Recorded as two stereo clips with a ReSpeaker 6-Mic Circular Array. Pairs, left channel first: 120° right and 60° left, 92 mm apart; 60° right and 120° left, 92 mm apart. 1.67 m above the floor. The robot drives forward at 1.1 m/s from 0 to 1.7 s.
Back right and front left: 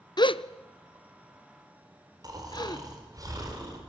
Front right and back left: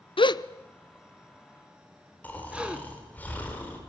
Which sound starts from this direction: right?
A gasp, at 0.2 s.